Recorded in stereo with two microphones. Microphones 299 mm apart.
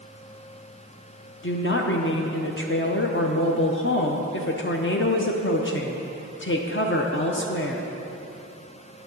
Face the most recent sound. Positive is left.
turn(degrees=40)  # may be behind; listen again after turning